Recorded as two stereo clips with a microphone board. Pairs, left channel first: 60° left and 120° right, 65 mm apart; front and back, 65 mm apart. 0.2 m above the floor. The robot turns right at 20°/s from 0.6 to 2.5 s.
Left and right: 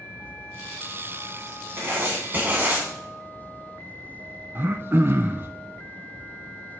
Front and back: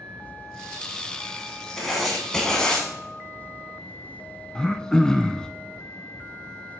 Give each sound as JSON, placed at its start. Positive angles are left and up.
{"t": 1.8, "sound": "writing", "azimuth_deg": -90, "distance_m": 1.9}
{"t": 4.5, "sound": "throat clearing", "azimuth_deg": -75, "distance_m": 0.6}